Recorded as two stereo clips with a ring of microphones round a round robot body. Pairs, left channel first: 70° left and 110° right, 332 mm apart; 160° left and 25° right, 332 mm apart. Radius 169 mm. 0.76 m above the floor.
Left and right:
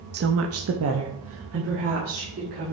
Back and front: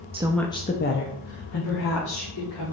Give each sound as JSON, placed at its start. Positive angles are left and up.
{"t": 0.1, "sound": "a woman speaking", "azimuth_deg": -80, "distance_m": 0.6}